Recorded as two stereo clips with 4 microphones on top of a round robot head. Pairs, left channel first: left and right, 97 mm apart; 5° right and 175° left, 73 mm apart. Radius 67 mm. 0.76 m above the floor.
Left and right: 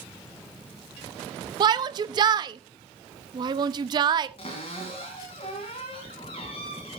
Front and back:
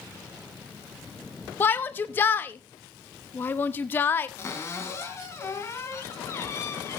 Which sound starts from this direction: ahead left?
A cupboard door, at 4.4 s.